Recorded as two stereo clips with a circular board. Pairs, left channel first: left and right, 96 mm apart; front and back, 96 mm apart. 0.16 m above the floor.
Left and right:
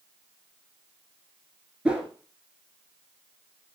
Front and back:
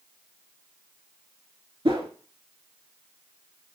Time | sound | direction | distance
1.9 | a whoosh | 165° right | 0.7 m